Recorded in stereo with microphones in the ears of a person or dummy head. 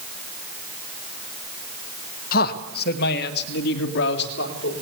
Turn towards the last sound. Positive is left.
turn(degrees=65)  # may be behind; listen again after turning